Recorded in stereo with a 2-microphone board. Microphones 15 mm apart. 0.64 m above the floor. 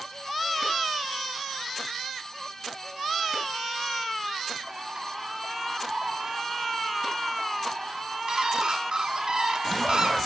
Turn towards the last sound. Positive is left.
turn(degrees=-55)  # may be behind; listen again after turning